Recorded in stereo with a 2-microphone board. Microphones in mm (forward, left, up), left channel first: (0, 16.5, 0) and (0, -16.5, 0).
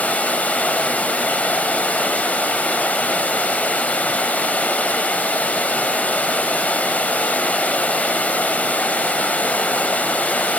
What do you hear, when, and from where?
0.0 s running water: 45° left (ahead or behind), 1.5 m